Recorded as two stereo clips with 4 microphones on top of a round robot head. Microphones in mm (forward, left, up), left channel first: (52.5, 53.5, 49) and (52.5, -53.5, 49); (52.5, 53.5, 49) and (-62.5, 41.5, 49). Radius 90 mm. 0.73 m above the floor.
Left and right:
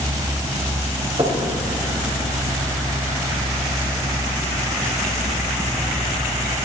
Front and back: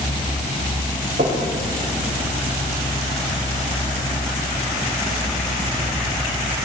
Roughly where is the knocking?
Behind right.